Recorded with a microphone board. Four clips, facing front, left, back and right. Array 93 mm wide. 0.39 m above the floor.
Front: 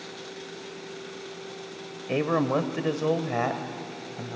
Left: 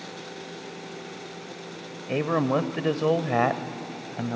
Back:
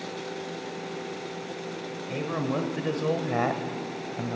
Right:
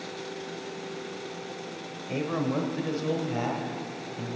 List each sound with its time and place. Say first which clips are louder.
2.1 s a man speaking: left 5 dB, front 5 dB; 40° left, 1.3 m; by 4.4 s 105° left, 1.7 m